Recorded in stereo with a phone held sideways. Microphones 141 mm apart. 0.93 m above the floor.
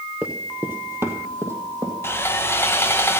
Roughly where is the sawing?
Centre.